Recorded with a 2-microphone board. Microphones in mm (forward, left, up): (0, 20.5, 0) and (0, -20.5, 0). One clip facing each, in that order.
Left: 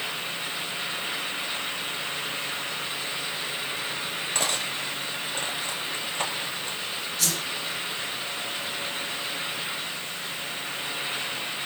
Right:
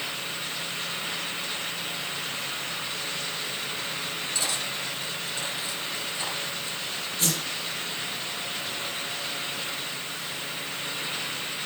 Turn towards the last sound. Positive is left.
turn(degrees=-30)  # may be behind; listen again after turning